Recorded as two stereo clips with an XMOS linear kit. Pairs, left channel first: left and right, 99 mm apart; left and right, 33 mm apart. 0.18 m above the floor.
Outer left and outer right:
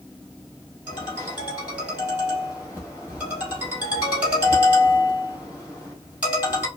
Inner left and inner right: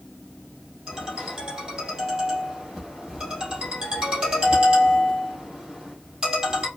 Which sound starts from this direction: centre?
A ringtone, at 0.9 s.